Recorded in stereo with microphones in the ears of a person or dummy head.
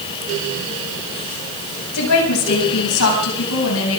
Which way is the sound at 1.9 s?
85° left.